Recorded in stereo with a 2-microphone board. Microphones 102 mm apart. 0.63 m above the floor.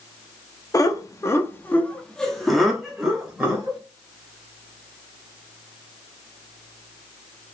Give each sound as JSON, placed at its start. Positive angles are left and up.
{"t": 0.7, "sound": "laughter", "side_deg": 35, "distance_m": 0.9}